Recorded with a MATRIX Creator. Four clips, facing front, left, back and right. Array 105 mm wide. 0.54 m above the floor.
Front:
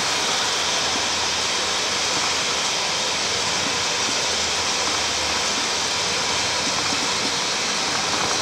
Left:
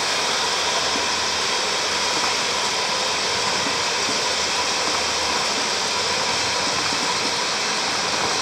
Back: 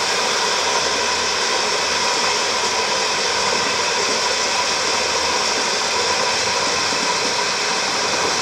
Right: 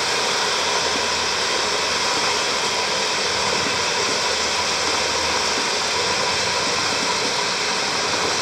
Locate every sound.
0.0 s running water: 160° right, 1.4 m